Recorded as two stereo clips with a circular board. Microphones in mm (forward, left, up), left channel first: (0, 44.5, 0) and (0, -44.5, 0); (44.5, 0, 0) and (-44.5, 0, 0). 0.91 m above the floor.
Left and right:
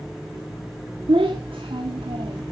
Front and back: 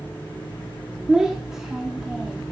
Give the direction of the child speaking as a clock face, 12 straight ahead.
3 o'clock.